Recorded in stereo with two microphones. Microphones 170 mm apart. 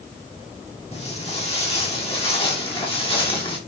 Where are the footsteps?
35° left (ahead or behind), 7.5 m; by 3.6 s 30° left (ahead or behind), 5.5 m.